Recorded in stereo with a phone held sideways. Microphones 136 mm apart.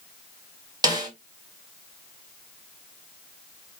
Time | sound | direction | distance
0.8 | a snare drum | 30° right (ahead or behind) | 1.6 m